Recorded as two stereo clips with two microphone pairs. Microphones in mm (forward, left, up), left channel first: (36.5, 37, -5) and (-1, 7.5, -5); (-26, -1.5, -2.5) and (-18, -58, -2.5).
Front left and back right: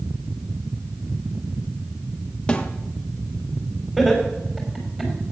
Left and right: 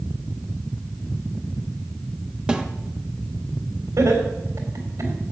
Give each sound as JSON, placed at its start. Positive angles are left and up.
{"t": 2.5, "sound": "a snare drum", "azimuth_deg": -20, "distance_m": 1.0}
{"t": 4.0, "sound": "laughter", "azimuth_deg": -60, "distance_m": 3.5}